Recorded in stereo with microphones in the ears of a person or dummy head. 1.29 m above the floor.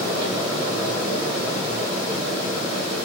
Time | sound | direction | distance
0.0 | a fan | 30° right (ahead or behind) | 1.1 m